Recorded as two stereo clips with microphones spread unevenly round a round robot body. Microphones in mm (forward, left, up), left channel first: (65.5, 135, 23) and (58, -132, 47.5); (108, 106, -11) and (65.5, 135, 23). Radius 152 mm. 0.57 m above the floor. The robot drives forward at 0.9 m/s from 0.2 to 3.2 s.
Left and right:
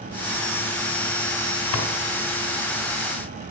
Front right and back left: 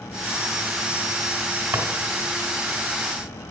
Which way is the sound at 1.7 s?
125° left.